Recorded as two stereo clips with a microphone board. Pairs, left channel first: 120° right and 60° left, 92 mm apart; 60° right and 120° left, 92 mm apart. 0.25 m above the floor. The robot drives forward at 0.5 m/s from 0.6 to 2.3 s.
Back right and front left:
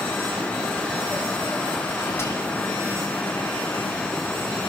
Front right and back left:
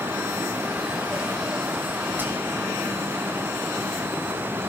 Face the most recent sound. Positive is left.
turn(degrees=-175)